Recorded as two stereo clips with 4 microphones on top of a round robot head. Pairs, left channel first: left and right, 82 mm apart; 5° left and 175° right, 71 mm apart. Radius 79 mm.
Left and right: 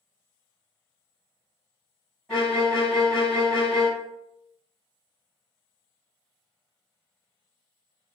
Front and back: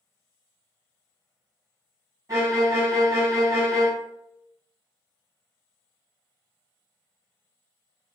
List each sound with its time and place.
2.3 s a violin: 175° left, 1.1 m